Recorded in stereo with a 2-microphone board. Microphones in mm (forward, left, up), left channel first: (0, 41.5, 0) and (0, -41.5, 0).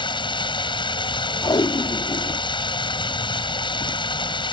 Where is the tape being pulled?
70° left (ahead or behind).